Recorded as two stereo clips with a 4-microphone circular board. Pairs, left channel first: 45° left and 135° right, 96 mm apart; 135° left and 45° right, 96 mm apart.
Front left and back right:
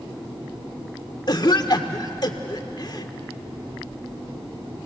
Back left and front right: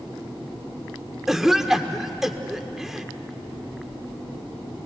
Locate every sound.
1.3 s a cough: 40° left, 1.5 m